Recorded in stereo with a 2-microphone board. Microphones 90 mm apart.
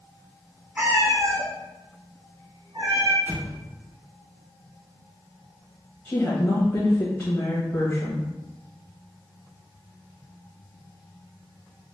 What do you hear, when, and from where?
0.8 s a cat meowing: 20° right (ahead or behind), 0.6 m; by 3.2 s 75° right (ahead or behind), 1.9 m
3.3 s an explosion: 25° right (ahead or behind), 0.6 m
6.0 s a woman speaking: 30° left (ahead or behind), 1.0 m